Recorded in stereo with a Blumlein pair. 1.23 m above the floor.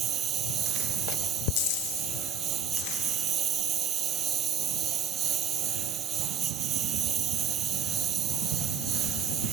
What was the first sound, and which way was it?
A lawn mower, 25° right.